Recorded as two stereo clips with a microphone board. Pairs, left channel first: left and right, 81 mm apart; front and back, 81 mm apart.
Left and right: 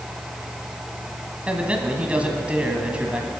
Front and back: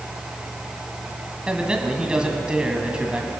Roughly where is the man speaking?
Behind right.